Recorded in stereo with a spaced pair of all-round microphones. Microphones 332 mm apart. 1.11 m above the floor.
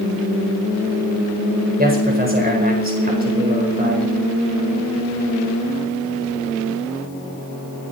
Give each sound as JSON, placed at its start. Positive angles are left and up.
{"t": 1.8, "sound": "a man speaking", "side_deg": -25, "distance_m": 4.5}